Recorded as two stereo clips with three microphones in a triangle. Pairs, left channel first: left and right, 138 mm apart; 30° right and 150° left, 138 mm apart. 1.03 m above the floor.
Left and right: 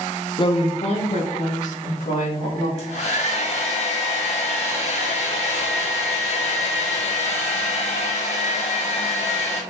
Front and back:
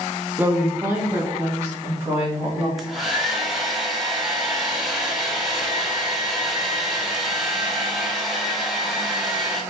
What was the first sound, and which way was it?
A woman speaking, 85° left.